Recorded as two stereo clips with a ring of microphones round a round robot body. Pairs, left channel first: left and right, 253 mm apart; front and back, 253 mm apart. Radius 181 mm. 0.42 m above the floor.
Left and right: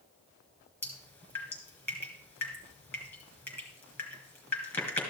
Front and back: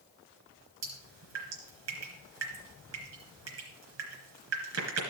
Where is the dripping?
170° left, 3.5 m.